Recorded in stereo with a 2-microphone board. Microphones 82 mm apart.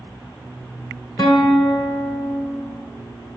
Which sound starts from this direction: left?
A guitar, at 1.2 s.